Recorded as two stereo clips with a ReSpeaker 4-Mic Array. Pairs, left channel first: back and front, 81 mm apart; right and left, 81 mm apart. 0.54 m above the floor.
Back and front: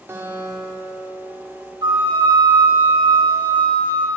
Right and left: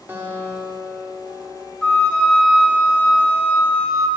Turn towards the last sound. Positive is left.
turn(degrees=-10)